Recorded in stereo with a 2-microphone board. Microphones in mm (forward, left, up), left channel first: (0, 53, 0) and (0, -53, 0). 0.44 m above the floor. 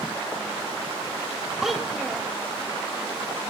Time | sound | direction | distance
1.6 | a child speaking | centre (ahead or behind) | 1.2 m